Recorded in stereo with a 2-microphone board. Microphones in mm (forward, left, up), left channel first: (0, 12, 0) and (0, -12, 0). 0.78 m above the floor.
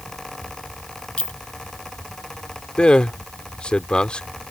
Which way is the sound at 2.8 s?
45° left (ahead or behind).